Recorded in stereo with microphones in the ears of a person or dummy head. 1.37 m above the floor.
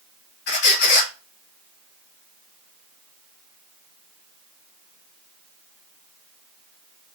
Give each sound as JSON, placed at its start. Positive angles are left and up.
{"t": 0.5, "sound": "a squeak", "side_deg": 55, "distance_m": 1.2}